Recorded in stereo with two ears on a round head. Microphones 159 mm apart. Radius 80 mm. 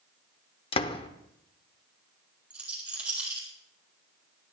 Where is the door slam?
30° left (ahead or behind), 0.9 m.